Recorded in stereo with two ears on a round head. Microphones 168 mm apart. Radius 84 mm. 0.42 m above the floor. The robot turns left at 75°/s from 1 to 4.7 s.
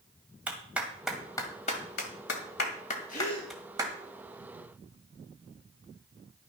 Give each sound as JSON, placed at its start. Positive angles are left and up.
{"t": 0.5, "sound": "a clap", "side_deg": -5, "distance_m": 2.0}
{"t": 3.1, "sound": "a gasp", "azimuth_deg": 50, "distance_m": 4.0}